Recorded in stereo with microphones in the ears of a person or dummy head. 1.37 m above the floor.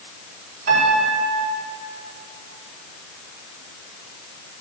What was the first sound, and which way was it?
A piano, 50° right (ahead or behind).